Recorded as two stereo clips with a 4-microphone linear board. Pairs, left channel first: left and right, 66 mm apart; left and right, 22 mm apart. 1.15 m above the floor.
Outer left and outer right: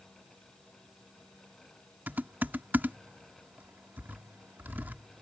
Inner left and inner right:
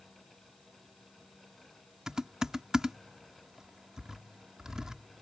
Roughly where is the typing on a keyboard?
Right.